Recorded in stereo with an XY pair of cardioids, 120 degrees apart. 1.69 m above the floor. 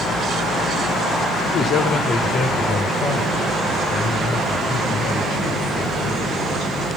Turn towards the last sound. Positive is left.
turn(degrees=75)